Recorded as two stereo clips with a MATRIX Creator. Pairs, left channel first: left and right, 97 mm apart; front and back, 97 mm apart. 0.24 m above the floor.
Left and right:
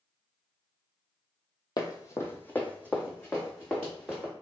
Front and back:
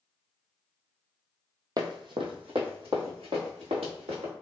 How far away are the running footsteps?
About 0.5 m.